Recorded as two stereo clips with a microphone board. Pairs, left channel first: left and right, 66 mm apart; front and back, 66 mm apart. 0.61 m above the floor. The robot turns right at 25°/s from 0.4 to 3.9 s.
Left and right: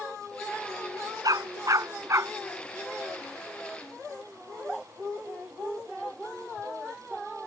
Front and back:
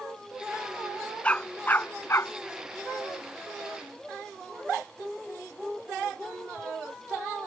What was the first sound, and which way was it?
A dog barking, 70° right.